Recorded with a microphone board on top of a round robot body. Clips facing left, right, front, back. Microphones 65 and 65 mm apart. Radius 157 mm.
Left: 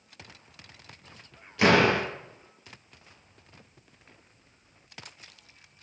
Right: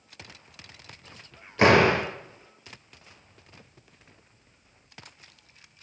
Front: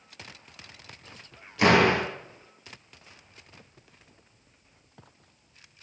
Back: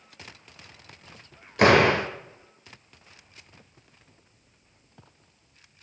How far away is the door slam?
About 2.5 m.